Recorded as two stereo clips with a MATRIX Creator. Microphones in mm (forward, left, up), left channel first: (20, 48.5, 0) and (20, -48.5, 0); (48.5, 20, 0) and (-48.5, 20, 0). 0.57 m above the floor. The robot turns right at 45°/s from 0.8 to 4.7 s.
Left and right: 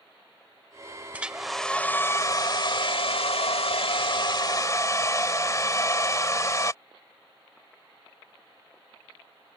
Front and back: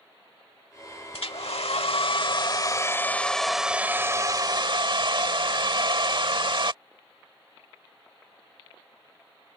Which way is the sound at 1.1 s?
15° right.